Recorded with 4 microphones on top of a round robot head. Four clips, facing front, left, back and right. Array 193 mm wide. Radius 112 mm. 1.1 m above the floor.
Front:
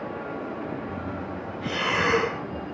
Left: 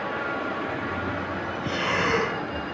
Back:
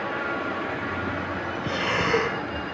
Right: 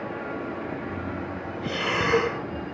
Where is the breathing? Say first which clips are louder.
Even, front 2 dB; 15° right, 1.7 m.